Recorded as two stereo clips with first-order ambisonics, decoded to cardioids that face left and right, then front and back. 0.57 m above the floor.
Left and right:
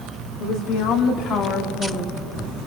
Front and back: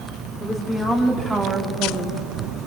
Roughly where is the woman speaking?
Left.